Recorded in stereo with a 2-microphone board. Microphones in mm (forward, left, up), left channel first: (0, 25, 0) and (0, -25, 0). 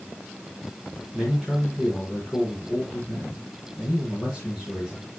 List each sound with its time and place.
1.1 s a man speaking: 10° left (ahead or behind), 4.5 m